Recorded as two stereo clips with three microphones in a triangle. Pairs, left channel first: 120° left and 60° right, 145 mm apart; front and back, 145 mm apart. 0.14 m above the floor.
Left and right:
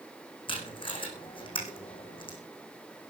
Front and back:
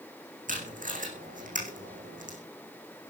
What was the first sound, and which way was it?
Tape being pulled, 170° left.